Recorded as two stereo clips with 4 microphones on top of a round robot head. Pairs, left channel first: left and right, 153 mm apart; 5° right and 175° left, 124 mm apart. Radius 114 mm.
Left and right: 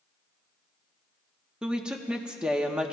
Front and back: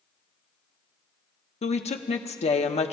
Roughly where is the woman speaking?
Ahead.